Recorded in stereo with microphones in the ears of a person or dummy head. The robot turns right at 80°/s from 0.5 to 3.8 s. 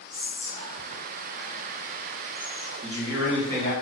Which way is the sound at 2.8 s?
40° right.